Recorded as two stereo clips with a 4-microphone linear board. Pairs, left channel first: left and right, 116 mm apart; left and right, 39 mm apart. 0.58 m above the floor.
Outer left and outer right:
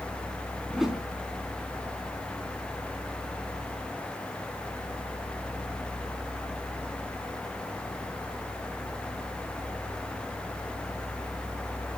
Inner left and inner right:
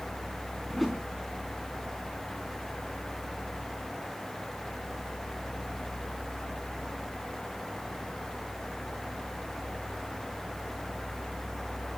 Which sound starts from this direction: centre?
A whoosh, at 0.7 s.